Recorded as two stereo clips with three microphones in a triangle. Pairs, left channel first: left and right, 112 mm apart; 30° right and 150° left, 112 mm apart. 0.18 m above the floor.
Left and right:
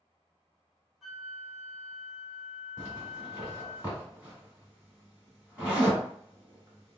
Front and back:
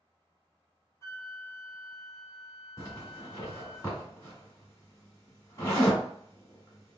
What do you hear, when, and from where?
1.0 s a flute: 5° right, 0.8 m
2.8 s a zipper: 30° right, 1.9 m